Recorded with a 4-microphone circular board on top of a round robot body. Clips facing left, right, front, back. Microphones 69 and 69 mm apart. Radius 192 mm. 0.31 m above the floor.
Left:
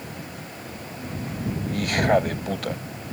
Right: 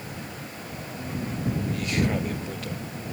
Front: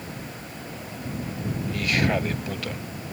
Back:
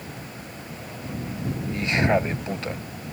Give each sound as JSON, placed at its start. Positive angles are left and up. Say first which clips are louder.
{"t": 1.7, "sound": "a man speaking", "louder": "left 9 dB, back 3 dB", "azimuth_deg": 115}